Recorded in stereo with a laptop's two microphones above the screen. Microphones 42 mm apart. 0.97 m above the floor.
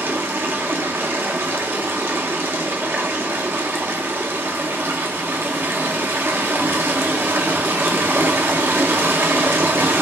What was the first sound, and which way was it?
Running water, 60° right (ahead or behind).